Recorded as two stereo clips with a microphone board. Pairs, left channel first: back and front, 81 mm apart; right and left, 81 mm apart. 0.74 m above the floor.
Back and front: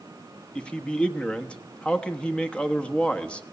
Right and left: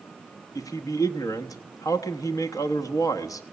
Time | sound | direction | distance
0.6 | a man speaking | 105° right | 1.1 m